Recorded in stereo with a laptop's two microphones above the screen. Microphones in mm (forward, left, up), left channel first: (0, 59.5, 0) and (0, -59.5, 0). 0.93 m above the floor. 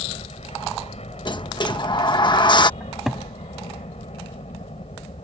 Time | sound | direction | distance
0.0 | a helicopter | 70° left (ahead or behind) | ?
1.2 | a sliding door | 45° left (ahead or behind) | ?
2.8 | a cupboard door | centre (ahead or behind) | ?